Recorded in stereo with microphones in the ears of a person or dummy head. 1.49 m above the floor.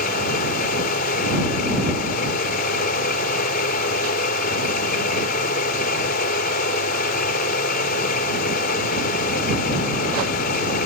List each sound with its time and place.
0.0 s a machine running: 50° left (ahead or behind)